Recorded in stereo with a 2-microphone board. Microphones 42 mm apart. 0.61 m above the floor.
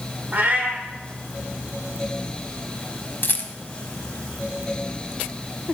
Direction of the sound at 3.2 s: 50° left (ahead or behind).